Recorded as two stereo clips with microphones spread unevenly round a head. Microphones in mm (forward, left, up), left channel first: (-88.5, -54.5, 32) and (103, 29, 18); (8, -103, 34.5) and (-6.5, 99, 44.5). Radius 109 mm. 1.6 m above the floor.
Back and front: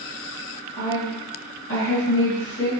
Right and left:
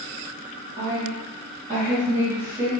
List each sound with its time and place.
0.8 s a woman speaking: 160° left, 1.9 m